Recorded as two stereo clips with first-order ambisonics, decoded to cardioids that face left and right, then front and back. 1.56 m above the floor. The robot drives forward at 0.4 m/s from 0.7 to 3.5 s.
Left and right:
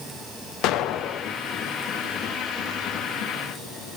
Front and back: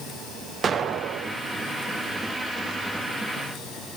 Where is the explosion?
115° left, 0.5 m; by 1.4 s 140° left, 0.7 m.